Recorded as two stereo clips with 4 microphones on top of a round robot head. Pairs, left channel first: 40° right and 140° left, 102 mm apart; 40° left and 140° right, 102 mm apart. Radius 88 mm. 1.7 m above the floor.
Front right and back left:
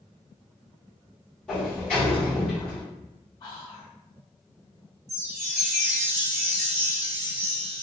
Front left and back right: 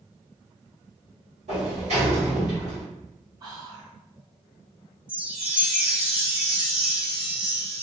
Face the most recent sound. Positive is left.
turn(degrees=140)